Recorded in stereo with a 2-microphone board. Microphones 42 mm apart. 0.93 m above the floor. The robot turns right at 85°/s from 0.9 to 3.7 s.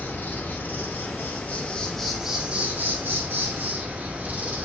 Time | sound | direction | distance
0.0 | an insect | 80° left | 0.8 m